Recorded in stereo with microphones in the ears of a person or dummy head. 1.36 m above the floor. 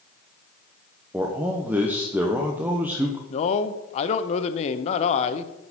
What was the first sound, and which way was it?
A man speaking, centre (ahead or behind).